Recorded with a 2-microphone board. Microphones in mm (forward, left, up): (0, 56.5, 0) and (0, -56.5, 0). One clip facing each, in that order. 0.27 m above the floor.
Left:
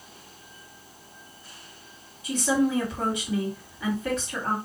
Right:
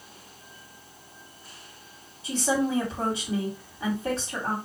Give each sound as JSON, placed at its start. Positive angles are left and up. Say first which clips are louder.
{"t": 2.2, "sound": "a woman speaking", "louder": "left 2 dB", "side_deg": -30, "distance_m": 2.0}